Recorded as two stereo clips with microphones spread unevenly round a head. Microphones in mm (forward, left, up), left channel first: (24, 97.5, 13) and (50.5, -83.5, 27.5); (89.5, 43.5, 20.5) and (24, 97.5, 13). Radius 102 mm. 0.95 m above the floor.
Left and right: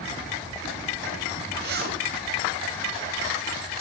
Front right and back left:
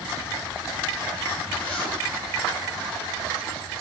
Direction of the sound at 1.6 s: 125° right.